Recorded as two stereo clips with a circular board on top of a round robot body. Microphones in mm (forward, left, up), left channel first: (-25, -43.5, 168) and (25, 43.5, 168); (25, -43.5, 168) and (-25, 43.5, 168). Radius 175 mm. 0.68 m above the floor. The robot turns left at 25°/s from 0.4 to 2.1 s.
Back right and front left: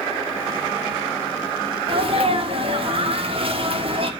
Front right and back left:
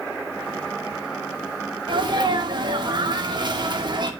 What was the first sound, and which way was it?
A sneeze, 85° left.